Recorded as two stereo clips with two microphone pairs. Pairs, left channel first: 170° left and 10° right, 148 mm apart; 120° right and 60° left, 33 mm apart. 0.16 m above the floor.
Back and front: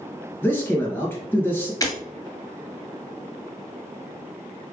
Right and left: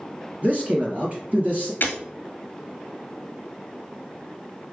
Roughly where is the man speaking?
Left.